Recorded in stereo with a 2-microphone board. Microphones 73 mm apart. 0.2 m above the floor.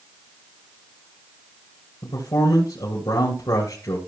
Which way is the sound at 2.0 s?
65° left (ahead or behind).